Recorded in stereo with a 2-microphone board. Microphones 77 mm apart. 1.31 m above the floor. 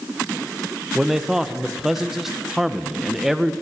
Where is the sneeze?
No sneeze in this recording.